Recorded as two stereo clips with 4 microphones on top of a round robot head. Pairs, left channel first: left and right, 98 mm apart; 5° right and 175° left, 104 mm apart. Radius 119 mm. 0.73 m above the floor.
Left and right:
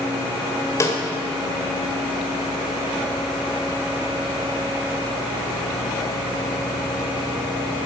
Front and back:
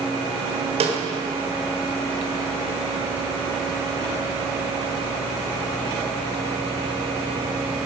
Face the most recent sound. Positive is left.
turn(degrees=150)